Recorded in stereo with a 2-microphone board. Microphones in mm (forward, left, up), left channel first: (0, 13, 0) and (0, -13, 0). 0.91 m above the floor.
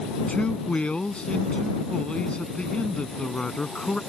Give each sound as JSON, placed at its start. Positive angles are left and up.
{"t": 0.3, "sound": "a man speaking", "side_deg": 45}